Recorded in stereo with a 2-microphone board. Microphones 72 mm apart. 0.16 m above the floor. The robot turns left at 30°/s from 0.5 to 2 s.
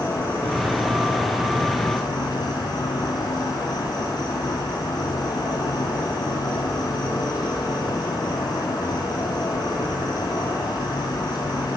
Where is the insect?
125° left, 1.5 m; by 11.8 s 80° left, 1.5 m.